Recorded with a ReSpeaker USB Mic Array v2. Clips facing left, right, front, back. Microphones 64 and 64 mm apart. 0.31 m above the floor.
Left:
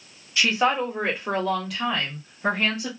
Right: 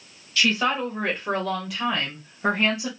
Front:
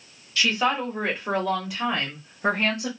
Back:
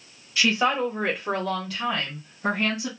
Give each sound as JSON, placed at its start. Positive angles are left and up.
{"t": 0.4, "sound": "a woman speaking", "azimuth_deg": 135, "distance_m": 1.3}